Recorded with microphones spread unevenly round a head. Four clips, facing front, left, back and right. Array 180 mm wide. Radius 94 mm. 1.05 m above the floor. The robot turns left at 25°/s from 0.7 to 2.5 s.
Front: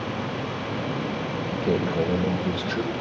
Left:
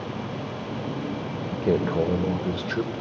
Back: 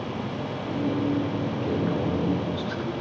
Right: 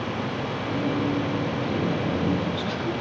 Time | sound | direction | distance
1.5 | a man speaking | 80° left | 4 m